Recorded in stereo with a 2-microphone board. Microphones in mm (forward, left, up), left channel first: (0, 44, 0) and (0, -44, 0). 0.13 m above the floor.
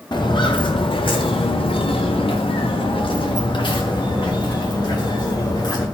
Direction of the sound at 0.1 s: 55° left (ahead or behind).